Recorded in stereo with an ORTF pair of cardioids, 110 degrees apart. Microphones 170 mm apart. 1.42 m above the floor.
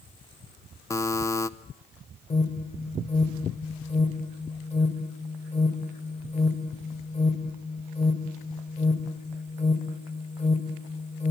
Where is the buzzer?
15° left, 0.9 m.